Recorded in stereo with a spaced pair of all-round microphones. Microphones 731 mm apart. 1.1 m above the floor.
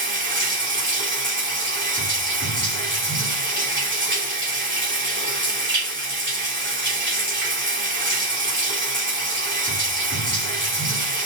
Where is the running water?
15° right (ahead or behind), 3 m.